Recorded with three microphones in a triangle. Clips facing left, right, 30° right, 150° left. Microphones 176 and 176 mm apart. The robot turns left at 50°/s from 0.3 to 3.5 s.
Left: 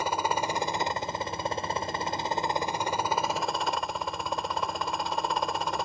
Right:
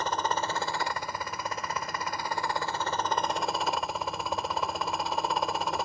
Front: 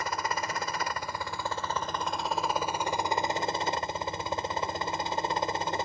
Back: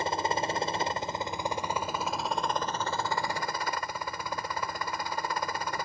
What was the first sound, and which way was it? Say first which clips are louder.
A helicopter: left 1 dB, back 3 dB; 160° left.